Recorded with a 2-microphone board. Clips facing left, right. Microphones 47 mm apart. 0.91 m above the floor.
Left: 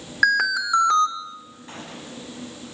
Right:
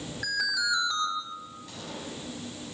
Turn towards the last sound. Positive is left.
turn(degrees=35)  # may be behind; listen again after turning